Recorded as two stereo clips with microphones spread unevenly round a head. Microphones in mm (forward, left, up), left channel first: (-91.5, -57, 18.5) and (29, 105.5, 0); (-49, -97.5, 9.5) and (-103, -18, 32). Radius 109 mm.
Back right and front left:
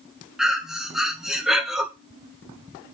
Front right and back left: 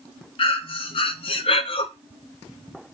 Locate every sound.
0.4 s breathing: 35° right, 0.8 m